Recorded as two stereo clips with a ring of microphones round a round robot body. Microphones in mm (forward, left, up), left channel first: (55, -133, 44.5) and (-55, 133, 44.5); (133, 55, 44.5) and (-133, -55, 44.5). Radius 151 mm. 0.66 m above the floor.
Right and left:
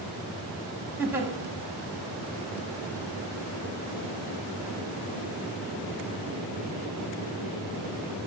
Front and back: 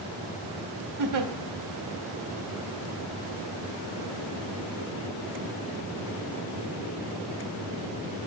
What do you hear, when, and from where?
1.0 s a giggle: 165° right, 0.9 m